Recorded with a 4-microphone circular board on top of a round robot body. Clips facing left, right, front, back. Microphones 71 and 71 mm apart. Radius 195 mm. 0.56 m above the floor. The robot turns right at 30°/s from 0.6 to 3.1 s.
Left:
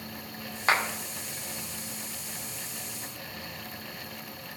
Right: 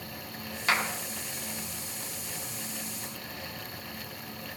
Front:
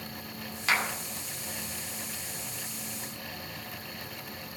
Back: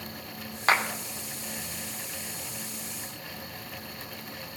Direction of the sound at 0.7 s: 140° left.